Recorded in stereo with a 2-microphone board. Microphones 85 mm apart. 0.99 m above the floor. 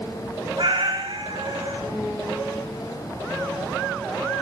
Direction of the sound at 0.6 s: 75° right (ahead or behind).